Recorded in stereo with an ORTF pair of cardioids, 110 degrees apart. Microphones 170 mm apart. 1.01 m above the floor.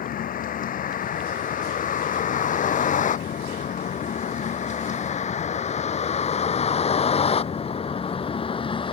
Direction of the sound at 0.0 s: 55° left.